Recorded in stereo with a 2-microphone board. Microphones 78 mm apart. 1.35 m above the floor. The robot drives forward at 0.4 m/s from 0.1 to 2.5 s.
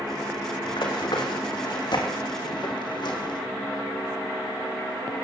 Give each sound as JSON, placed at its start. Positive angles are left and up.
{"t": 0.7, "sound": "running footsteps", "side_deg": 70, "distance_m": 3.5}